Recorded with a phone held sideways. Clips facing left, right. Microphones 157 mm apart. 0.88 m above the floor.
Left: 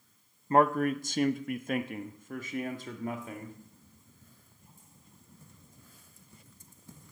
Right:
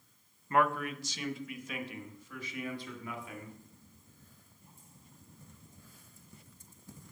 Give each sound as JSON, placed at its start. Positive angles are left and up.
{"t": 0.5, "sound": "a man speaking", "side_deg": 35, "distance_m": 0.6}